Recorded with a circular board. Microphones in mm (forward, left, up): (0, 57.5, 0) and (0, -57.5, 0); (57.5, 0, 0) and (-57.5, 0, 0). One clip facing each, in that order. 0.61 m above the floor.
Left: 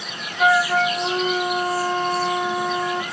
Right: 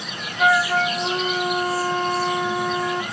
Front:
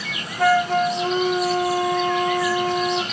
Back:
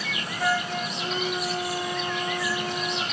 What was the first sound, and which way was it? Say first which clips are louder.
A flute: left 1 dB, front 10 dB; 5° left.